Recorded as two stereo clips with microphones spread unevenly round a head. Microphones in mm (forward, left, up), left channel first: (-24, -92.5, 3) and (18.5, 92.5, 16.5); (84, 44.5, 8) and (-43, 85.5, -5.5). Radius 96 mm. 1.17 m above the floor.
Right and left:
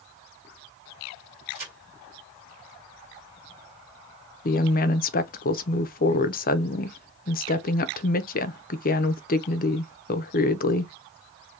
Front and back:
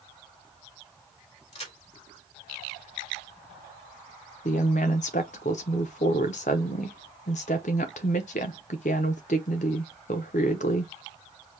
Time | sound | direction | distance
1.5 | a crack | 20° left | 3.5 m
4.5 | a woman speaking | 65° right | 0.6 m